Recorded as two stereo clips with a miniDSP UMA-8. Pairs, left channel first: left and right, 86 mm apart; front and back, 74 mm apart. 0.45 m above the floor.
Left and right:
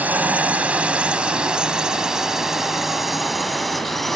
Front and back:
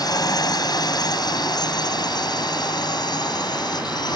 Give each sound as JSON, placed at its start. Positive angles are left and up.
{"t": 0.0, "sound": "a drone", "azimuth_deg": -20}